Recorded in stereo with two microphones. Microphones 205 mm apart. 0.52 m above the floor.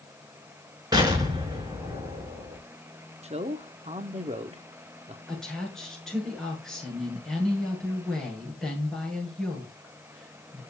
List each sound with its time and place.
0.9 s an explosion: 20° right (ahead or behind), 4.5 m
3.2 s a man speaking: 30° right (ahead or behind), 1.0 m
5.3 s a woman speaking: 5° left (ahead or behind), 7.5 m